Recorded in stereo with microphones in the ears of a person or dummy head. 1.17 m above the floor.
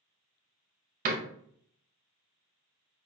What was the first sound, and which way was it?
A door slam, 45° right (ahead or behind).